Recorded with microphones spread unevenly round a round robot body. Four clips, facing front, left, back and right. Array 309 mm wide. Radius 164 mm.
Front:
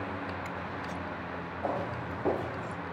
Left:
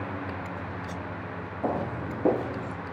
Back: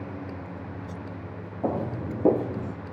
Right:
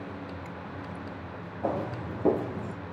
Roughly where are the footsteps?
Behind.